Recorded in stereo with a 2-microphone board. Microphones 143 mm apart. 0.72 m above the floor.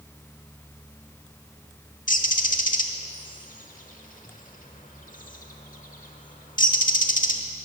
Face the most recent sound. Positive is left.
turn(degrees=70)  # may be behind; listen again after turning